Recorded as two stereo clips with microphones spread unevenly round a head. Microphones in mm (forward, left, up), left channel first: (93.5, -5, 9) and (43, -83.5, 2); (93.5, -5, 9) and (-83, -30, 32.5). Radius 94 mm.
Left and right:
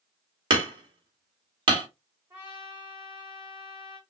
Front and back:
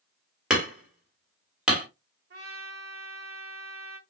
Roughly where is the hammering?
Right.